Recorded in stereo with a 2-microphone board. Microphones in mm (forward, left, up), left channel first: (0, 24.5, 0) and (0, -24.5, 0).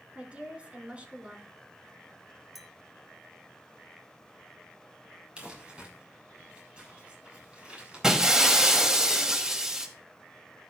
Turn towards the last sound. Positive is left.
turn(degrees=-15)  # may be behind; listen again after turning